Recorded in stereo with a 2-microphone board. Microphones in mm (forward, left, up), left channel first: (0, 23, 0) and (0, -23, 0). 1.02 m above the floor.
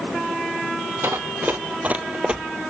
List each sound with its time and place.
1.0 s running footsteps: 55° right (ahead or behind), 1.7 m; by 2.4 s 15° right (ahead or behind), 1.4 m